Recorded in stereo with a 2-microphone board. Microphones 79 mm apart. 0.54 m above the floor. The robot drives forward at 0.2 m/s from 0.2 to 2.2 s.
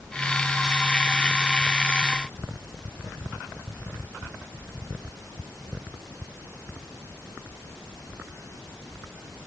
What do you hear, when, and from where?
Only background noise.